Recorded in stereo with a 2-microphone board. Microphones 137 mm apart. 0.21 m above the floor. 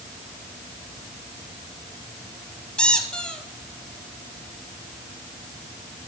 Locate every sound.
2.8 s a squeak: 5° left (ahead or behind), 1.6 m